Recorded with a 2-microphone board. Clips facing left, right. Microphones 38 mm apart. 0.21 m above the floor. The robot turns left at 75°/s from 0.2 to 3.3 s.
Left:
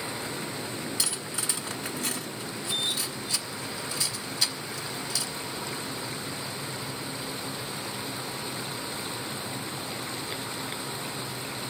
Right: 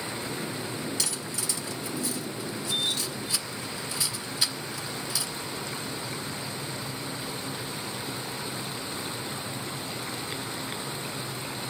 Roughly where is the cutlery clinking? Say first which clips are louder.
Even; centre.